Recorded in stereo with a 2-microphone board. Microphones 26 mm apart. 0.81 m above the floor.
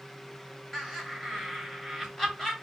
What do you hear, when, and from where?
0.7 s laughter: 10° left (ahead or behind), 2.5 m